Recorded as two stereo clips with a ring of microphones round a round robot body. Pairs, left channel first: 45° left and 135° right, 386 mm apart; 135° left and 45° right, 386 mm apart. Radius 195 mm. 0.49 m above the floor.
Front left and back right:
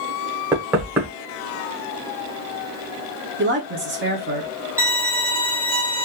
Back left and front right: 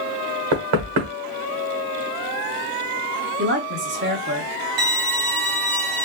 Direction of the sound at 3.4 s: 90° right.